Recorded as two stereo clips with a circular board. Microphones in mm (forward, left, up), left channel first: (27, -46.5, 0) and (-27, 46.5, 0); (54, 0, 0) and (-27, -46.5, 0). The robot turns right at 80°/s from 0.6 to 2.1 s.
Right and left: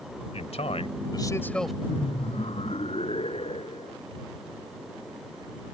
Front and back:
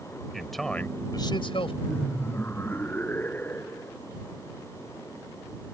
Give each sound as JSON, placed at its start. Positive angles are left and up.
{"t": 0.3, "sound": "a man speaking", "azimuth_deg": -60}
{"t": 1.9, "sound": "laughter", "azimuth_deg": -60}